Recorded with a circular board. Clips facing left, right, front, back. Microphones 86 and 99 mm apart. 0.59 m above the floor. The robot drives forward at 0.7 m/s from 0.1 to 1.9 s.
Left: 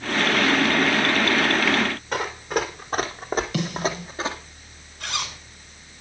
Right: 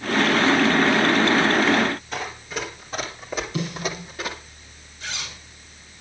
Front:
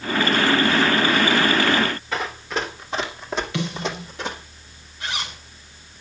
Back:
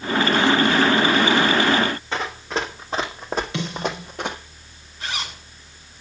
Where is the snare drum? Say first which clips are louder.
Left 2 dB, even; 110° left, 5 m.